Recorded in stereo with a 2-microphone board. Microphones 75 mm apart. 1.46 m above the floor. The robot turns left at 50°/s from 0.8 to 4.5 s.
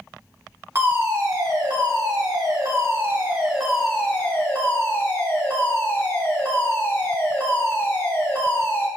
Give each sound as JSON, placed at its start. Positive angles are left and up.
{"t": 0.8, "sound": "a fire alarm", "azimuth_deg": -35, "distance_m": 2.5}